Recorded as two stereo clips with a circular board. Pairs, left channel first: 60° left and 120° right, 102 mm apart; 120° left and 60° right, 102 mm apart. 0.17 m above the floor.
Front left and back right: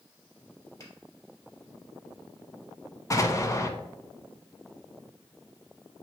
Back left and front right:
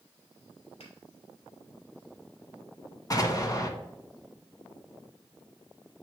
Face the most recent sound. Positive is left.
turn(degrees=95)